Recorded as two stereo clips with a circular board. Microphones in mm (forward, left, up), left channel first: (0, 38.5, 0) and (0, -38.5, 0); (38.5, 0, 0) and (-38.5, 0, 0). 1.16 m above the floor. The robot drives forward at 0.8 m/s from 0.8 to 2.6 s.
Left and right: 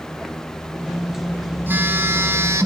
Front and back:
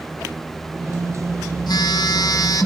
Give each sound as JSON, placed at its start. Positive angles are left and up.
{"t": 1.7, "sound": "a phone buzzing", "azimuth_deg": -30, "distance_m": 2.5}